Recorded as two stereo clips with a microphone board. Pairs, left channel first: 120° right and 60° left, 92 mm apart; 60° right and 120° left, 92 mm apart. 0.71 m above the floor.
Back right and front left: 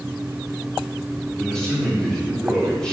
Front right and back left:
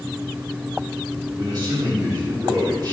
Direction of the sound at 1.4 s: 160° left.